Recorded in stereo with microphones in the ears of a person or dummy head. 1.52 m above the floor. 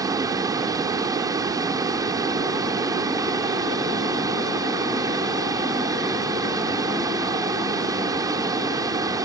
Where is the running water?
20° right (ahead or behind).